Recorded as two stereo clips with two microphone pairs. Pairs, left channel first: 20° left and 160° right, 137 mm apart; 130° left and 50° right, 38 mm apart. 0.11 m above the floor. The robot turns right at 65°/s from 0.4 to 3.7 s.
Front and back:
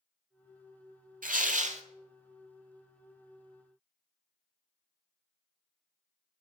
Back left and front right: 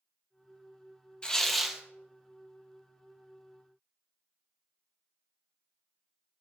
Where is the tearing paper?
165° right, 0.6 m; by 1.8 s 125° right, 0.6 m.